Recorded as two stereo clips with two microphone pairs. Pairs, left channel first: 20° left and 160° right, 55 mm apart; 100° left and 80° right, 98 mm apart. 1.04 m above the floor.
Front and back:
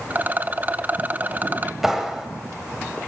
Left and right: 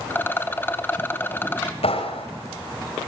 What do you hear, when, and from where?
0.1 s a rattle: 160° left, 1.0 m
1.8 s a clap: 110° left, 4 m